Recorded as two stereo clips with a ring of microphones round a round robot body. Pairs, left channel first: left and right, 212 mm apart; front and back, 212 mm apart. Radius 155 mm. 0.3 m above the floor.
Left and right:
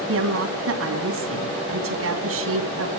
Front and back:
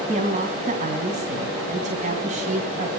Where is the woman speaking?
115° right, 3.5 m.